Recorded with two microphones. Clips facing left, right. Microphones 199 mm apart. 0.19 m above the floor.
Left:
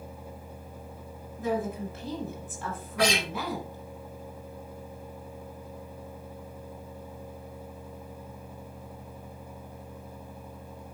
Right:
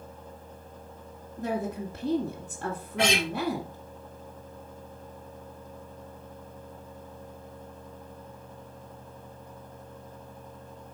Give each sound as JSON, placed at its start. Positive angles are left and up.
{"t": 1.4, "sound": "a woman speaking", "side_deg": -45, "distance_m": 1.7}
{"t": 3.0, "sound": "a guitar", "side_deg": -25, "distance_m": 2.5}